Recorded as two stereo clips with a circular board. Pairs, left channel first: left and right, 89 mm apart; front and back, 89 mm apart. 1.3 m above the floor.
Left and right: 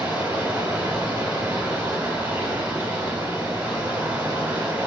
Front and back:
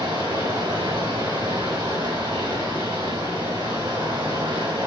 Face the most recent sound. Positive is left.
turn(degrees=-165)